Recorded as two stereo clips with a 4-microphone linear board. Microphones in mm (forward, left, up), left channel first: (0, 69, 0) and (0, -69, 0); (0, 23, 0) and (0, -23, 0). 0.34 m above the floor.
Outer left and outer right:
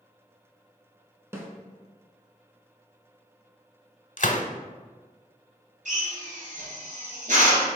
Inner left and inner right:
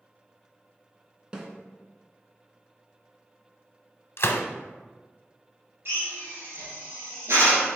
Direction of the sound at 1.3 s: 20° right (ahead or behind).